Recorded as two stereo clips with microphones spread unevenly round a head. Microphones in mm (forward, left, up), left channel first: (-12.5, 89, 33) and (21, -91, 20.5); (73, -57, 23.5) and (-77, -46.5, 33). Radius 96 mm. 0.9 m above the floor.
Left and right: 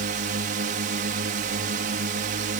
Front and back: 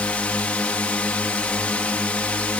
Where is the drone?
80° right.